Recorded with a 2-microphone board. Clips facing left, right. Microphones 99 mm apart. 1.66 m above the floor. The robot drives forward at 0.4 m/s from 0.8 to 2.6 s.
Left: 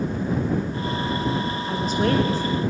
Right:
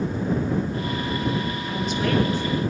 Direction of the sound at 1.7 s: 40° left (ahead or behind).